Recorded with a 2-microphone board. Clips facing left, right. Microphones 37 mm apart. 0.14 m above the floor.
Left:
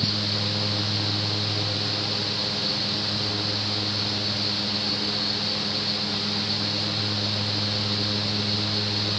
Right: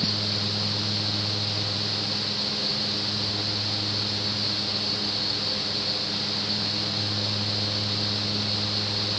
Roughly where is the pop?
No pop in this recording.